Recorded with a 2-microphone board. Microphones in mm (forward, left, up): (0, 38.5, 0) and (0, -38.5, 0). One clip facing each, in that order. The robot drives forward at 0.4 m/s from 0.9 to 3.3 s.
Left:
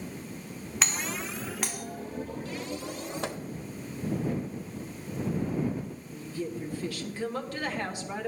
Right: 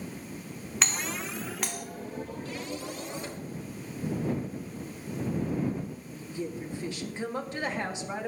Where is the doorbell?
Centre (ahead or behind), 1.1 m.